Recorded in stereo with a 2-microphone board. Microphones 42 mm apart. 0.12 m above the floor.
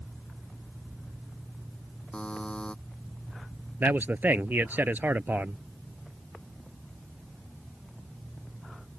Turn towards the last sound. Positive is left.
turn(degrees=-55)  # may be behind; listen again after turning